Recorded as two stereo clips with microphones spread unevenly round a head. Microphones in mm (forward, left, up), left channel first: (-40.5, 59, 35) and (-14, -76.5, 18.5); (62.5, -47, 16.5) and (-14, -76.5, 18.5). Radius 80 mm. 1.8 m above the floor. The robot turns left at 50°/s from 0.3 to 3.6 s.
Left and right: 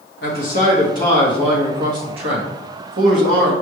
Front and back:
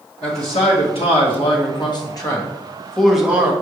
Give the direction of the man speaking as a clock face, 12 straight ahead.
10 o'clock.